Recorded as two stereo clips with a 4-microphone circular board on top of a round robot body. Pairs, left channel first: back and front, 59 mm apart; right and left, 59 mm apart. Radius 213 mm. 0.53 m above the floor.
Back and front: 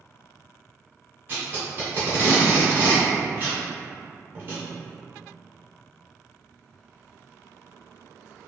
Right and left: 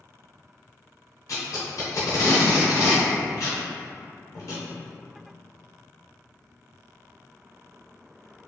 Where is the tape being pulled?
55° right, 0.6 m.